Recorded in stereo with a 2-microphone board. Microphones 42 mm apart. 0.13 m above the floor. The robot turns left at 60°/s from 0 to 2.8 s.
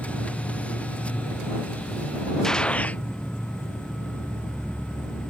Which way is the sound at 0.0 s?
Straight behind.